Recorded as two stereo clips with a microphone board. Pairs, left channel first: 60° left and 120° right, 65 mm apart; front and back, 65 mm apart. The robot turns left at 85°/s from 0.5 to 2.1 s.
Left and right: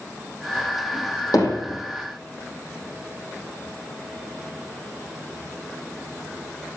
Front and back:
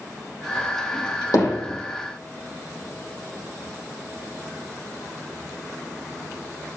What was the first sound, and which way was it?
Hammering, 35° left.